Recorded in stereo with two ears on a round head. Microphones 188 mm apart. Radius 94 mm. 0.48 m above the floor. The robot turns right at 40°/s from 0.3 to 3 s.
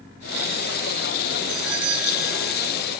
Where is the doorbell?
105° right; by 2.7 s 55° right.